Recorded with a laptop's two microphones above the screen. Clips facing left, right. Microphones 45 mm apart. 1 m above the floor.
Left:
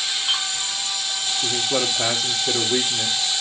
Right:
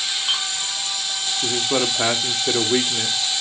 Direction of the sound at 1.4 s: 35° right (ahead or behind).